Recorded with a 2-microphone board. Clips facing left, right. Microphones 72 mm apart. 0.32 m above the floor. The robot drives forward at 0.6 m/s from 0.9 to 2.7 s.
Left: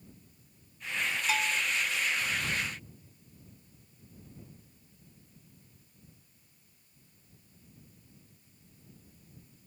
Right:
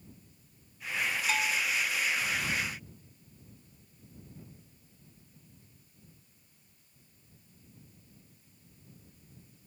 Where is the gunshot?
I don't hear a gunshot.